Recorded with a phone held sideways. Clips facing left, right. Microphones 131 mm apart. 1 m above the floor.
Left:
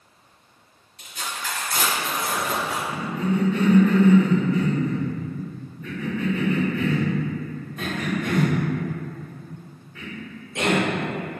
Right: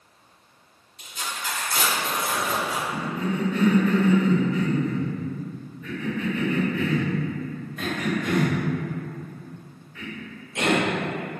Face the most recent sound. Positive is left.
turn(degrees=30)  # may be behind; listen again after turning